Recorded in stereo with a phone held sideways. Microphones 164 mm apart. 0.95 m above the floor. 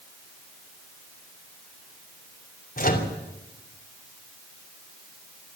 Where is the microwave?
60° left (ahead or behind), 3 m.